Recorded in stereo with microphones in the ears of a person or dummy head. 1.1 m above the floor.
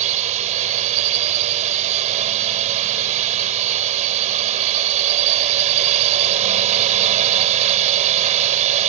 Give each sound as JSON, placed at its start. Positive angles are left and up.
{"t": 0.0, "sound": "a drone", "side_deg": -40}